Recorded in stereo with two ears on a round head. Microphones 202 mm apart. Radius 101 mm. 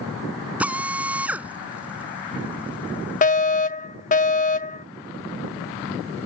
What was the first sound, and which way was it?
A drill, 5° right (ahead or behind).